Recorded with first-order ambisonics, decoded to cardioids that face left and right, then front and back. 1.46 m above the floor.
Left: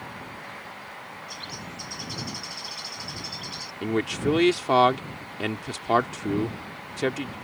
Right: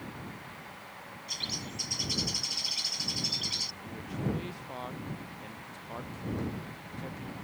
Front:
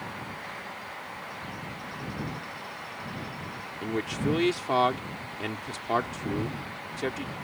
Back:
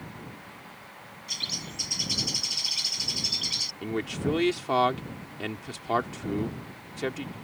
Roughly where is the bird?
Behind.